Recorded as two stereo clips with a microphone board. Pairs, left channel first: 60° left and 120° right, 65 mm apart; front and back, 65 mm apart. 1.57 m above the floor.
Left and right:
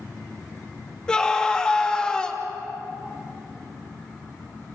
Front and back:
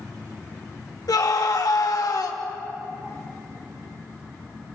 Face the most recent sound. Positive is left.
turn(degrees=-20)